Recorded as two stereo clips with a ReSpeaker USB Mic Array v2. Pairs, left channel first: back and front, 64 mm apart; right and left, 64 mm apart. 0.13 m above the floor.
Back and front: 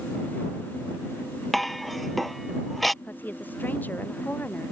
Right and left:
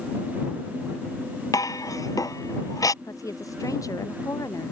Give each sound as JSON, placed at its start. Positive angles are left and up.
{"t": 1.5, "sound": "dishes clattering", "azimuth_deg": -95}
{"t": 3.0, "sound": "a woman speaking", "azimuth_deg": -120}